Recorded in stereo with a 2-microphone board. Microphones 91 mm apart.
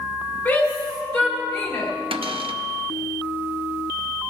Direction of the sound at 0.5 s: 30° left (ahead or behind).